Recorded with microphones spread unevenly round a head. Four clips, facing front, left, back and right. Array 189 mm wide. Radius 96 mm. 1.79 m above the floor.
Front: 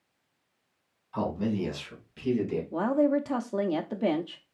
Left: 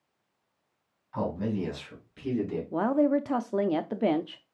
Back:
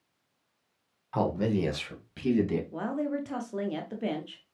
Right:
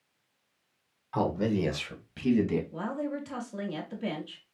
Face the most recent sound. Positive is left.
turn(degrees=65)